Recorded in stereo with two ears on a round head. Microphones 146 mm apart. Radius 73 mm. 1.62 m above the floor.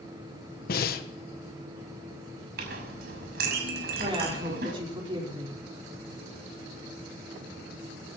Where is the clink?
60° right (ahead or behind), 6 m.